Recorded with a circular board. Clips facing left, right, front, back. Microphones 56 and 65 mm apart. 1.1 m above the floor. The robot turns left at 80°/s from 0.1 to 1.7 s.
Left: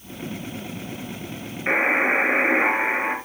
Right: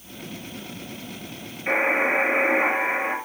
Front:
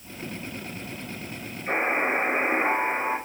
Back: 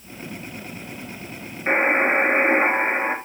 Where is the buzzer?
150° left, 3.5 m; by 3.1 s 145° left, 3.5 m.